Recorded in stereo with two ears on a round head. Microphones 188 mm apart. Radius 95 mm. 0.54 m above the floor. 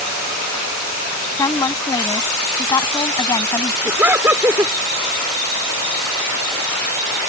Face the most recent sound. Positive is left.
turn(degrees=-10)  # may be behind; listen again after turning